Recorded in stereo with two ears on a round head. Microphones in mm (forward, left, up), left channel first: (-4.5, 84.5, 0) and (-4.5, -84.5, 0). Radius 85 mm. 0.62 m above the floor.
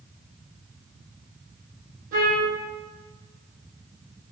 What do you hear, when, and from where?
2.1 s a trumpet: 45° right (ahead or behind), 5 m